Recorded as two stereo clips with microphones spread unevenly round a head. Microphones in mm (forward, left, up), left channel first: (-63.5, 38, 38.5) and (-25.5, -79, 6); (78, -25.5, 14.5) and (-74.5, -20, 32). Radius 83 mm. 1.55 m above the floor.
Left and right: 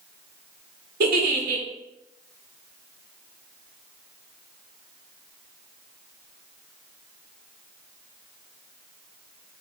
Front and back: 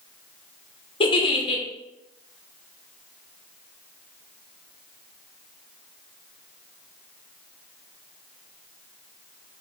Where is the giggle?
65° right, 0.5 m.